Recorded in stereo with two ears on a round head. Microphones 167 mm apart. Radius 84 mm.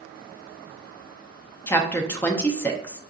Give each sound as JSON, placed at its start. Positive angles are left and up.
{"t": 1.7, "sound": "a woman speaking", "side_deg": 10, "distance_m": 0.6}